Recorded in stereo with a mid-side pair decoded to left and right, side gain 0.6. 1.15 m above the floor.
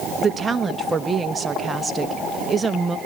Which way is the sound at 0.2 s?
25° right.